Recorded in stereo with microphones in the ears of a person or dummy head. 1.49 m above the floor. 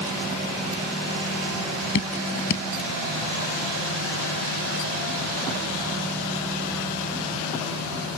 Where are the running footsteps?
I don't hear running footsteps.